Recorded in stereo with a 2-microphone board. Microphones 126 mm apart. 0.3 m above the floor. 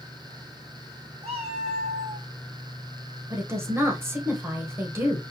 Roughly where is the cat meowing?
Right.